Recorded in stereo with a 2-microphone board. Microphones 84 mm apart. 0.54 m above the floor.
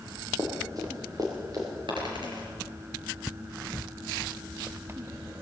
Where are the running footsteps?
45° right (ahead or behind), 5 m.